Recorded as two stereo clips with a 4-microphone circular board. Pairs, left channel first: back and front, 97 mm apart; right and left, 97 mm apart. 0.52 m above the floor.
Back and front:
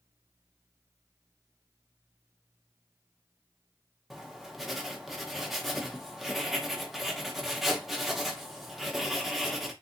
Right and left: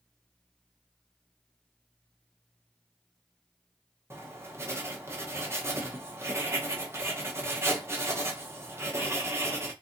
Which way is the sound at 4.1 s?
85° left.